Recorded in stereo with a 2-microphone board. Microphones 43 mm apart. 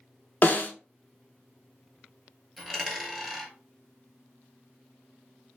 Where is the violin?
I don't hear a violin.